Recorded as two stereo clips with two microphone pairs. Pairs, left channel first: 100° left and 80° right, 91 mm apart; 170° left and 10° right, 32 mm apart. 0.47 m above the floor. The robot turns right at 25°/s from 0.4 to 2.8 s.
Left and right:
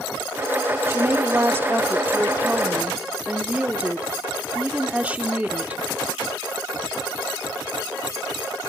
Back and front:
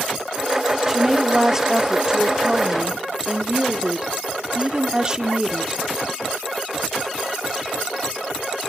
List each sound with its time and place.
0.9 s a woman speaking: 75° right, 0.7 m; by 5.8 s 30° right, 0.7 m